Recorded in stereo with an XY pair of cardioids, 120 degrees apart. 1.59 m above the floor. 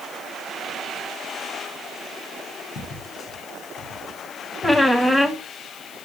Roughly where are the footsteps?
Ahead left.